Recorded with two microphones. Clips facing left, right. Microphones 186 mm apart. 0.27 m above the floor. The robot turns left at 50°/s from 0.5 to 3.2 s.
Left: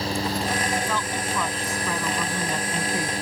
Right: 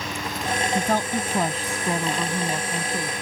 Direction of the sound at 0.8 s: 85° right.